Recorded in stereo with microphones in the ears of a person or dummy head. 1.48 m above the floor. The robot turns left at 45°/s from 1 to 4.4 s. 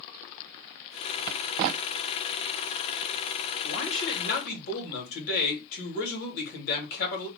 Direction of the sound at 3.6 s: 90° left.